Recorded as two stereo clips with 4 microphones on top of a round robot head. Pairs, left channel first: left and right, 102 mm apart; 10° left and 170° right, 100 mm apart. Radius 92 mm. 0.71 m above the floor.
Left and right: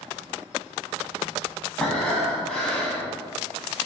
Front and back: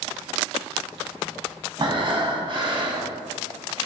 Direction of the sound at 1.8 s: 170° left.